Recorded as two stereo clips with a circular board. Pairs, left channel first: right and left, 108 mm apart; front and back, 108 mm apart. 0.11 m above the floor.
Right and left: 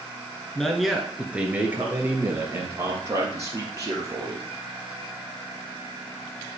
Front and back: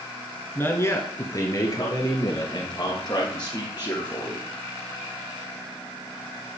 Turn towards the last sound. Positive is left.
turn(degrees=40)